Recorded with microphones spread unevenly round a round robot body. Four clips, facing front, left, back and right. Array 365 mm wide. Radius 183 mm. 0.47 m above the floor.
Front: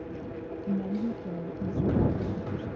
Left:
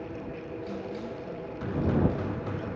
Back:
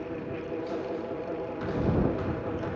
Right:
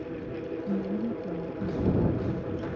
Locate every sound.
0.7 s a woman speaking: 40° right